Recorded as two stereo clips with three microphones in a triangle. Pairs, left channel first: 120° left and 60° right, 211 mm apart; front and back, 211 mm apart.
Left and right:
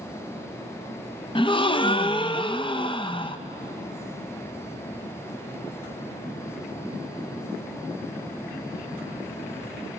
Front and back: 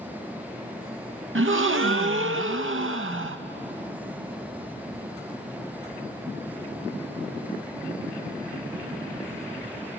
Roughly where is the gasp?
Behind.